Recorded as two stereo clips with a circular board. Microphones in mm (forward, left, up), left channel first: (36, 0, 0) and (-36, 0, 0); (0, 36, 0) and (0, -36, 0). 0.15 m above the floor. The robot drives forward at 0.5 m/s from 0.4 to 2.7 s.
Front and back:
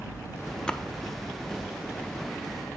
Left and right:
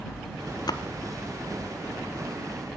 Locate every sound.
0.7 s a splash: 75° left, 0.6 m; by 0.8 s 85° left, 0.6 m